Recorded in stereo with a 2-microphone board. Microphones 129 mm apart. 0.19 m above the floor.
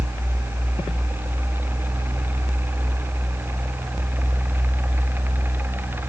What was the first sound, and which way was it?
Only background noise.